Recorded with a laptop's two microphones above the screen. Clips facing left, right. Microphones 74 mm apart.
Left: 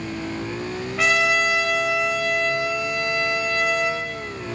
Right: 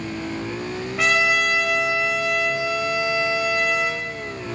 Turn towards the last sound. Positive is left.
turn(degrees=0)  # may be behind; listen again after turning